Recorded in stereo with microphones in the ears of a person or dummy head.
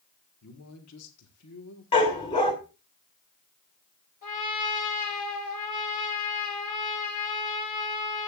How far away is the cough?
No cough in this recording.